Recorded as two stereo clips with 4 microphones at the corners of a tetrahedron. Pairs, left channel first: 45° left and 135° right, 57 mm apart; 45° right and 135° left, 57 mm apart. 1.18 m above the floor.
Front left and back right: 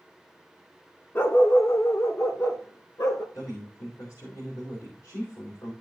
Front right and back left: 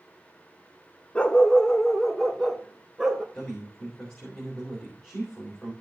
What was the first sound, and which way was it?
A dog barking, 20° left.